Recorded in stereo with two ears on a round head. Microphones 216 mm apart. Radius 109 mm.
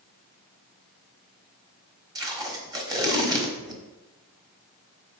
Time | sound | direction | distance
2.1 | tape being pulled | 15° right (ahead or behind) | 1.2 m